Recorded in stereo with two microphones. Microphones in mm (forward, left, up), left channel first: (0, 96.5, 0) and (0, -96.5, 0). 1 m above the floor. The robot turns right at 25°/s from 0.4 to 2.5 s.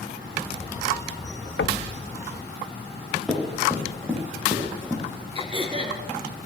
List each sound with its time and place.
1.6 s knocking: 85° left, 0.6 m
3.3 s running footsteps: centre (ahead or behind), 9 m; by 5.0 s 10° left (ahead or behind), 8.5 m
5.3 s throat clearing: 30° right (ahead or behind), 4.5 m